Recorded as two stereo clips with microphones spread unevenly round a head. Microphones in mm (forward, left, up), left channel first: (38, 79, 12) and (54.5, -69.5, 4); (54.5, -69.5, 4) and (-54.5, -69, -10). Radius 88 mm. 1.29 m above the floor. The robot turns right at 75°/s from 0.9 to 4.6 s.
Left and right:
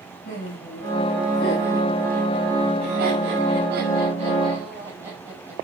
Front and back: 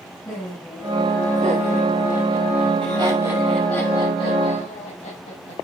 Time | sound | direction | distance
0.2 | laughter | 70° left | 8 m